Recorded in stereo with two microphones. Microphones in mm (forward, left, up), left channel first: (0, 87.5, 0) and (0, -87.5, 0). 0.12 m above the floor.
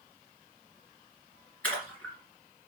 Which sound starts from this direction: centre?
A splash, at 1.6 s.